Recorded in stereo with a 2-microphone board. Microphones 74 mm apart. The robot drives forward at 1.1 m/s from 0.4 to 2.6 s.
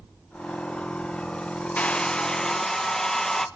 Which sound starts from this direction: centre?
A hair dryer, at 1.8 s.